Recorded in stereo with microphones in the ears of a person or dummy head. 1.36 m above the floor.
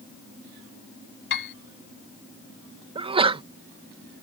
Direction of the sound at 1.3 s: 65° left (ahead or behind).